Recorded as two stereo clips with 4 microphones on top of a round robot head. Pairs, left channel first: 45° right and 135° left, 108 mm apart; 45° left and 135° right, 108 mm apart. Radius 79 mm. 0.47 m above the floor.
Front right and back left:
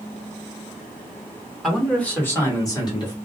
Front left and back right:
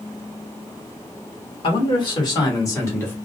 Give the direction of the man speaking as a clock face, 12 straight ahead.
11 o'clock.